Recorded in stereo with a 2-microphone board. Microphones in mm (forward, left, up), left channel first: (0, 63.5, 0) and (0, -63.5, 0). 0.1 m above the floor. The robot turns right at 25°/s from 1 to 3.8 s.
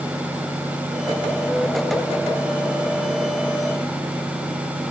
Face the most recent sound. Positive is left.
No sound to turn to.